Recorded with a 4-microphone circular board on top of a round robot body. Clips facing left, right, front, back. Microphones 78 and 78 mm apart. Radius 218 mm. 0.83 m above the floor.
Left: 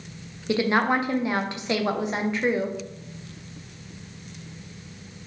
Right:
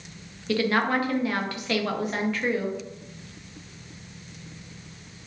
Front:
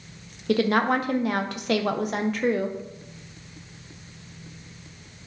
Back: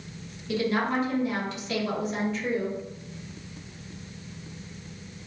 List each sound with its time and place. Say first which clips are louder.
0.5 s a woman speaking: left 2 dB, front 5 dB; 20° left, 0.5 m